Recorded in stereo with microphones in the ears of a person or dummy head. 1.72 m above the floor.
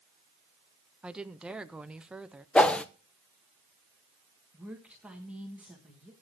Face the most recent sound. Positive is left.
turn(degrees=-10)  # may be behind; listen again after turning